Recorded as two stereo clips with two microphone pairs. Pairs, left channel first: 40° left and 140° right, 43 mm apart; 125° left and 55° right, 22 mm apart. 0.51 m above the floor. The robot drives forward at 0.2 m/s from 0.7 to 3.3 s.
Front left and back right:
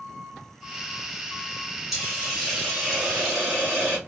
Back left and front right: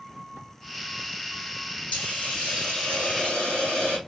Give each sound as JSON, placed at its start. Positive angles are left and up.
{"t": 1.9, "sound": "a hiss", "azimuth_deg": 135, "distance_m": 3.0}